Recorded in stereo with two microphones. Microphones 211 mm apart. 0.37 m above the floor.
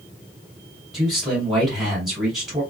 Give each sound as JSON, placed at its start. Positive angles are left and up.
{"t": 0.9, "sound": "a man speaking", "side_deg": 0, "distance_m": 1.9}